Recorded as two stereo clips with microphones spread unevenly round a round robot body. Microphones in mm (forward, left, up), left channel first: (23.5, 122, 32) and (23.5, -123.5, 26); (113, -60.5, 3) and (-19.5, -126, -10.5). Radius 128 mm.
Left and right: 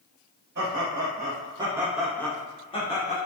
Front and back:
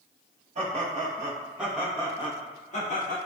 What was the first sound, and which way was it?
Laughter, 130° right.